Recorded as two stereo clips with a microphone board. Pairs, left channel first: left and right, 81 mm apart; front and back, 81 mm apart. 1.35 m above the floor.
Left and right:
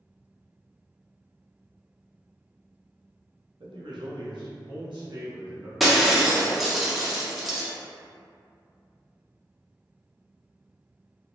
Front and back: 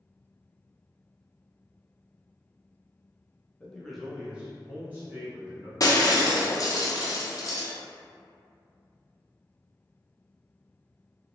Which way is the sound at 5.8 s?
Straight ahead.